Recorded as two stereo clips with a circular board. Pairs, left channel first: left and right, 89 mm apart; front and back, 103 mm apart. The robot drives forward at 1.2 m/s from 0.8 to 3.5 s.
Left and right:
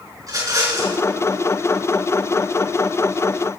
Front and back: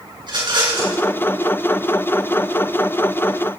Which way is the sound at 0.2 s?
140° right.